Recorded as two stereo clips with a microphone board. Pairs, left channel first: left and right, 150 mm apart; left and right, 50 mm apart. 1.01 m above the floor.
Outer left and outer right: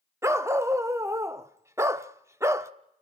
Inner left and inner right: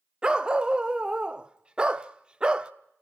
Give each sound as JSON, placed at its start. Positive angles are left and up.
{"t": 0.2, "sound": "a dog barking", "side_deg": -20, "distance_m": 0.6}